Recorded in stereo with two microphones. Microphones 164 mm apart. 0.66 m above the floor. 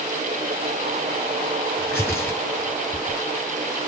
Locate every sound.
1.8 s tearing paper: 15° left (ahead or behind), 3 m